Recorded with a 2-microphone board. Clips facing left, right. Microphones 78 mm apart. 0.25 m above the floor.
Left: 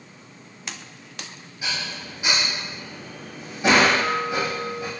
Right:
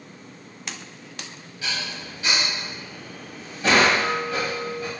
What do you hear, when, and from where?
1.6 s dishes clattering: 20° left (ahead or behind), 0.9 m